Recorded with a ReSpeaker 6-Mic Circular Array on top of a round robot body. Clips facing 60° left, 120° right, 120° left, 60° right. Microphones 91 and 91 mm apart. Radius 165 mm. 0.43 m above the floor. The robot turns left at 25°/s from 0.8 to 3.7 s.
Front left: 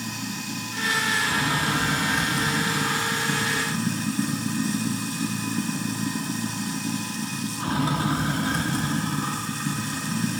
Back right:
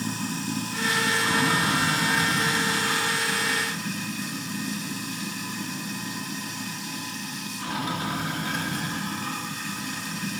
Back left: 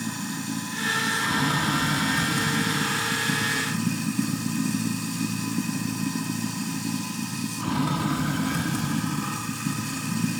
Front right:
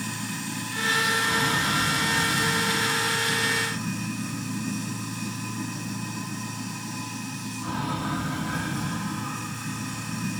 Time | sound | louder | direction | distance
0.0 | running water | back right 3 dB, back left 2 dB | 170° right | 2.5 m